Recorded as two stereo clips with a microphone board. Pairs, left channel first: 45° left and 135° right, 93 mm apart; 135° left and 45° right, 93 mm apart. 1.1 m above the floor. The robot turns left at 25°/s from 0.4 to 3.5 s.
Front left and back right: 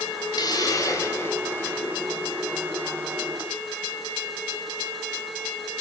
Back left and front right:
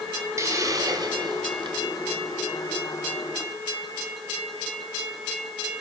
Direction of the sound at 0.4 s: 10° left.